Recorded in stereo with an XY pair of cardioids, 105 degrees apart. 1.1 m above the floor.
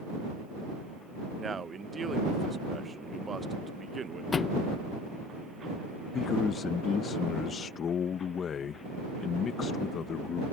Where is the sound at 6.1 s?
55° left.